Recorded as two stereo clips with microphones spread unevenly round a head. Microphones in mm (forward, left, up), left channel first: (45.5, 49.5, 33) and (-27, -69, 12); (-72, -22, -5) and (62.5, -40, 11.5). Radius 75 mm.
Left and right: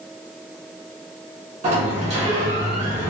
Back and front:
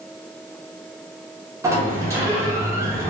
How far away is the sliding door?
About 0.9 m.